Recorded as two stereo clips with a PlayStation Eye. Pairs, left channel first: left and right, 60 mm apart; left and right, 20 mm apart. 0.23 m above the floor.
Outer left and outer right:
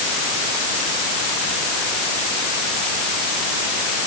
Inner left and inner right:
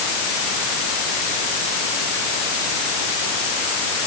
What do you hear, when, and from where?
Only background noise.